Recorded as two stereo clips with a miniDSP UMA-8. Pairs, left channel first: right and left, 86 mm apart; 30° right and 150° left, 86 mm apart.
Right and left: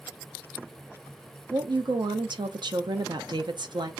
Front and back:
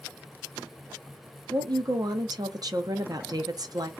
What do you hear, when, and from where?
1.5 s a woman speaking: 110° left, 0.6 m